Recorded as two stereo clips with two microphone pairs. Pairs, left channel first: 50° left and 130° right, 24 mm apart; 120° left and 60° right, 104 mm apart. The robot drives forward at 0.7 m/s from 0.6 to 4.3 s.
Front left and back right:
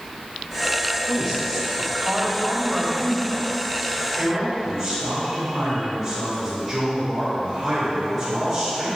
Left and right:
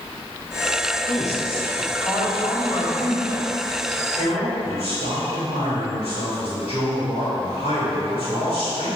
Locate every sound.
1.1 s a man speaking: 115° left, 3 m; by 8.9 s 145° left, 4 m